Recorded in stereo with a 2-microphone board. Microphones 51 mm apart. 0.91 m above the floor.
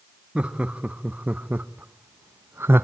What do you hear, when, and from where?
0.3 s laughter: 25° right (ahead or behind), 1.5 m; by 2.8 s 45° right (ahead or behind), 0.7 m